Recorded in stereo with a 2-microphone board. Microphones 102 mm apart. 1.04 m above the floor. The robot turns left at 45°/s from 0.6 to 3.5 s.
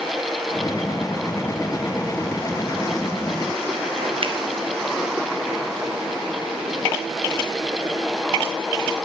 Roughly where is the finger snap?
Right.